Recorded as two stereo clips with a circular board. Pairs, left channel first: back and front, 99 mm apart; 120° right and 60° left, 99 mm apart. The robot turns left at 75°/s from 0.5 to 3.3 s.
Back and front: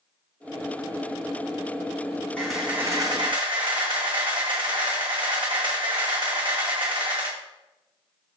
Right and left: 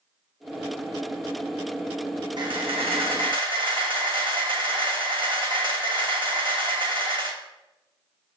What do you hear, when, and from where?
2.4 s a camera shutter: 100° left, 1.1 m; by 7.4 s 30° left, 1.1 m